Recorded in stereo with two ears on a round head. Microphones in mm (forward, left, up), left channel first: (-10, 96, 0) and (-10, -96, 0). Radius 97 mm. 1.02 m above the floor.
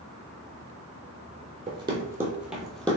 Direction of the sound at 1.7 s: 25° right (ahead or behind).